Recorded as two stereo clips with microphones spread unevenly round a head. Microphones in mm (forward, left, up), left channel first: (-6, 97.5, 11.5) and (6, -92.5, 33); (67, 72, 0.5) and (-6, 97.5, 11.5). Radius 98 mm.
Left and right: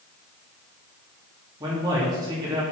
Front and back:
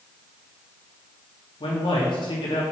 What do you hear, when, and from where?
1.6 s a man speaking: 15° right, 2.5 m